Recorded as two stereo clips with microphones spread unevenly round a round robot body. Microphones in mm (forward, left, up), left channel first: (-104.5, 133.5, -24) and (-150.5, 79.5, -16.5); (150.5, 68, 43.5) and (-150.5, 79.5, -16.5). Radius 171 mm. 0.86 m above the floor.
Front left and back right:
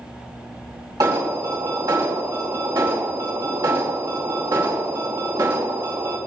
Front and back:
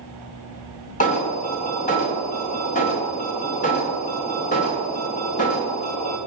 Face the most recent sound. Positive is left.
turn(degrees=-75)